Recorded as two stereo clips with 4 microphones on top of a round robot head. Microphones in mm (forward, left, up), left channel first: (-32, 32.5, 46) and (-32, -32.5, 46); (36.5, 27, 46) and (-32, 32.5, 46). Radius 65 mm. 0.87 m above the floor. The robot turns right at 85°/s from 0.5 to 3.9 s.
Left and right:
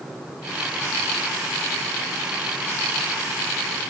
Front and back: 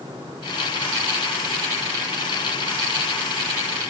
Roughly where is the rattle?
No rattle in this recording.